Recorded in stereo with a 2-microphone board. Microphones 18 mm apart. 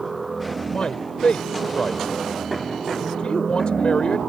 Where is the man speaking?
60° left (ahead or behind).